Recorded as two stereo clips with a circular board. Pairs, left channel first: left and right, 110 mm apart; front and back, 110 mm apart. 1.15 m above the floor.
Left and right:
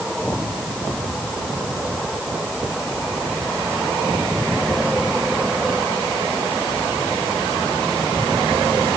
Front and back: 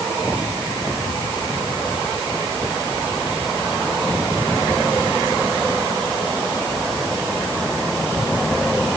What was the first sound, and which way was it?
Only background noise.